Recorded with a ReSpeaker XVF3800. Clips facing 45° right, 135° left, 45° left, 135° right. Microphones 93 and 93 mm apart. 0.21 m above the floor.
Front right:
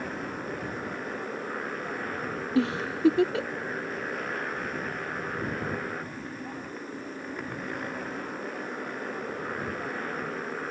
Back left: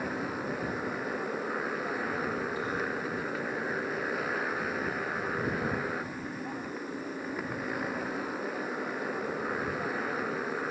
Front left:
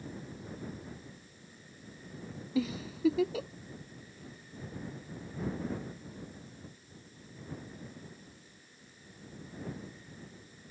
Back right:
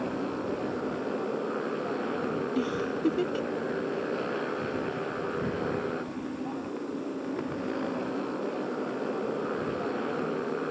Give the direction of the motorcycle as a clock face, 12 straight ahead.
5 o'clock.